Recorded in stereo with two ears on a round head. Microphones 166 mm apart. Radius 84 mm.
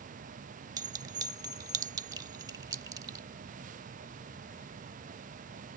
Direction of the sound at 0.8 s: 20° right (ahead or behind).